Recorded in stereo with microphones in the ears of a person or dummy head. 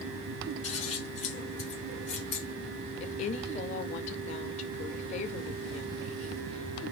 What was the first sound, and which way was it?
Scissors, 35° left (ahead or behind).